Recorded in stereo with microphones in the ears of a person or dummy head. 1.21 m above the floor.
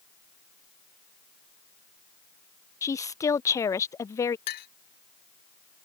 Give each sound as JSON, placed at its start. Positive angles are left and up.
{"t": 2.8, "sound": "a woman speaking", "side_deg": 15}
{"t": 4.5, "sound": "a clink", "side_deg": 50}